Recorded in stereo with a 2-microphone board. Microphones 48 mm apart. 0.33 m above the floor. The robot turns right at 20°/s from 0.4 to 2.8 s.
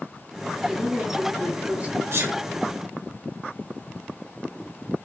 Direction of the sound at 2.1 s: 70° right (ahead or behind).